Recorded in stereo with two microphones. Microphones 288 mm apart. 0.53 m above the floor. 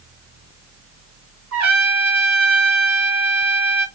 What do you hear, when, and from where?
1.5 s a trumpet: 70° right (ahead or behind), 1.2 m